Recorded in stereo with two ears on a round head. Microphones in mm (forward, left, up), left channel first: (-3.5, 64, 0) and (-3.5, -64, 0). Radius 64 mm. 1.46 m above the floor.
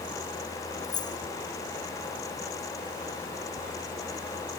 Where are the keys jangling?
35° left (ahead or behind).